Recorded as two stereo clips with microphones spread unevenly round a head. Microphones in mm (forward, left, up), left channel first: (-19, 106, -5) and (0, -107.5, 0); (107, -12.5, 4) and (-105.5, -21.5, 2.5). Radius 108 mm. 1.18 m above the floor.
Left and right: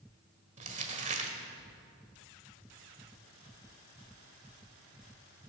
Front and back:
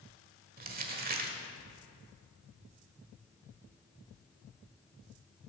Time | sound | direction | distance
0.6 | crumpling | 135° right | 1.4 m